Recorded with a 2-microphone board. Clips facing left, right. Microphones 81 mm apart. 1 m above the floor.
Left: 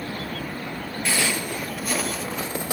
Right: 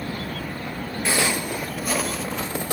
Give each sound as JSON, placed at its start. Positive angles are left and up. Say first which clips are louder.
{"t": 1.1, "sound": "footsteps", "louder": "right 2 dB", "side_deg": -25, "distance_m": 1.0}